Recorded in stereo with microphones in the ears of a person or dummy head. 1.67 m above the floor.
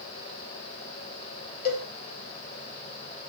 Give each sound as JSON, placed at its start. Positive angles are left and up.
{"t": 1.6, "sound": "a cowbell", "side_deg": 55, "distance_m": 4.5}